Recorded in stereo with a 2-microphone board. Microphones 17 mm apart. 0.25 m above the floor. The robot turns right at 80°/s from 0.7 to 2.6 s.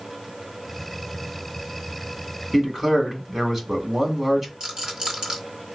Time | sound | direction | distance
2.5 | a man speaking | 10° right (ahead or behind) | 1.6 m
4.6 | a rattle | 35° right (ahead or behind) | 1.8 m